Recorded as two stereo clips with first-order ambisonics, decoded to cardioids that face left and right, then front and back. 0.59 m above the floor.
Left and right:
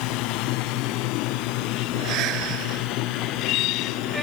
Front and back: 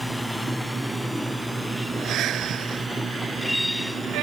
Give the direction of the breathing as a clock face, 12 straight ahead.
4 o'clock.